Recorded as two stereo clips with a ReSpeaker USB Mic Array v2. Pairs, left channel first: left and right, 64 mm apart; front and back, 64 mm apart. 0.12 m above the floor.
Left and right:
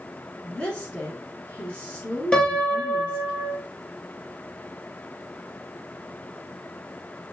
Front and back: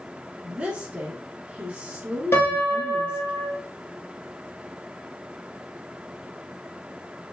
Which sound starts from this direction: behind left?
A woman speaking, at 0.4 s.